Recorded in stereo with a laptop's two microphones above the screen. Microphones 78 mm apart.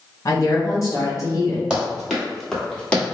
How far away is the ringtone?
I don't hear a ringtone.